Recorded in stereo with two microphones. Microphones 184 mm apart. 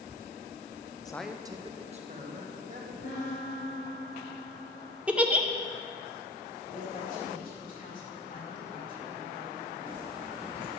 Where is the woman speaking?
45° left (ahead or behind), 4 m.